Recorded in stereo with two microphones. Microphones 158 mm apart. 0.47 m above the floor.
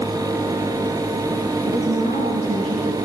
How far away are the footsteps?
I don't hear footsteps.